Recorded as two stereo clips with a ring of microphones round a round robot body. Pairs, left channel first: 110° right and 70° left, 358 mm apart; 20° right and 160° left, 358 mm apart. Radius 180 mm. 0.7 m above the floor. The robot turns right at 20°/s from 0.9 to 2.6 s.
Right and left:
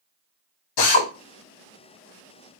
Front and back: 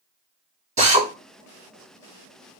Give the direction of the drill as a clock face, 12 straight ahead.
4 o'clock.